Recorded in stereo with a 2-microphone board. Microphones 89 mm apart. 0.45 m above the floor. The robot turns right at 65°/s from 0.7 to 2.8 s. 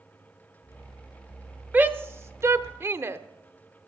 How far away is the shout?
About 0.9 m.